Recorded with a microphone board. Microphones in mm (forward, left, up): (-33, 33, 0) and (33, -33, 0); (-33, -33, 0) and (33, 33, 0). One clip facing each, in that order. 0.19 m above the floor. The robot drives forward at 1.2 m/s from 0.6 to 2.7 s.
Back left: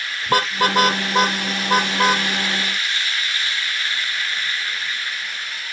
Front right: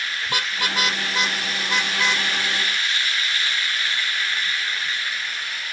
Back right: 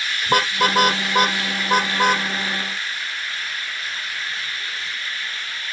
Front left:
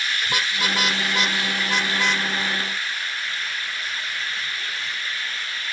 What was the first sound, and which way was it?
A car horn, straight behind.